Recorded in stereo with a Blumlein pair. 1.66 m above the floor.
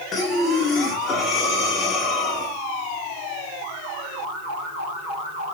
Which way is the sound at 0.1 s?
20° left.